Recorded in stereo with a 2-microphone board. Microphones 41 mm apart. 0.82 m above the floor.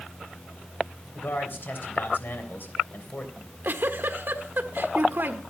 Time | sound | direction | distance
1.1 | a man speaking | 55° left (ahead or behind) | 3.5 m
3.4 | a giggle | 60° right (ahead or behind) | 1.3 m